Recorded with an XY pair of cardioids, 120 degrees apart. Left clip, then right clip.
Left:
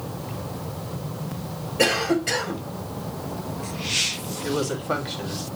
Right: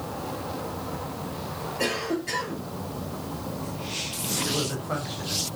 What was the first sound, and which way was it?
A cough, 65° left.